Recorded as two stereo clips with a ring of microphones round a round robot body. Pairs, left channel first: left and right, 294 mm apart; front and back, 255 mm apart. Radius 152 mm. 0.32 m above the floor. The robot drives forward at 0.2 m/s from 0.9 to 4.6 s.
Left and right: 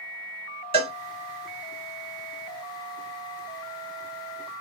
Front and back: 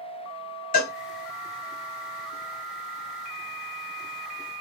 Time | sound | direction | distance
0.7 | a cowbell | 30° right | 1.6 m